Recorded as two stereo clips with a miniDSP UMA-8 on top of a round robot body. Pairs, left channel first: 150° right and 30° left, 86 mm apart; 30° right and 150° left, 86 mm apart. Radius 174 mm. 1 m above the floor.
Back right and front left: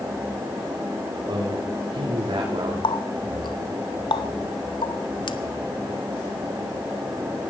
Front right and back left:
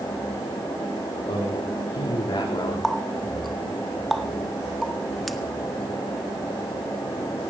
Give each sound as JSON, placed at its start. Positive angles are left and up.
{"t": 1.3, "sound": "a man speaking", "azimuth_deg": -15, "distance_m": 4.0}
{"t": 2.8, "sound": "a running tap", "azimuth_deg": -120, "distance_m": 1.0}